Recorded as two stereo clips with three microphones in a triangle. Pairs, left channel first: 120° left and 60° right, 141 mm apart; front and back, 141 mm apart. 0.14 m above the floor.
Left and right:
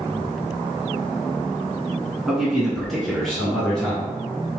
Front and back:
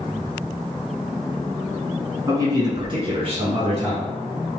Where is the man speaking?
145° right, 1.2 m; by 4.1 s 155° right, 2 m.